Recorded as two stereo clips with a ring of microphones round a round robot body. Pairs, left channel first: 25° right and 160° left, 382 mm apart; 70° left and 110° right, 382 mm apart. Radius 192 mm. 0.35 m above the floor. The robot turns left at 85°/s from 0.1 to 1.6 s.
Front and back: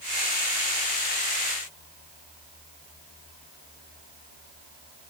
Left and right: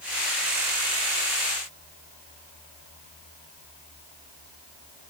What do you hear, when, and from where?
Only background noise.